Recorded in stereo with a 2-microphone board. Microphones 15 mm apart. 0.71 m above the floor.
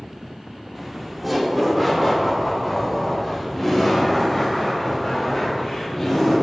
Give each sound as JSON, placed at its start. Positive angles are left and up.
{"t": 0.8, "sound": "laughter", "side_deg": -20, "distance_m": 1.6}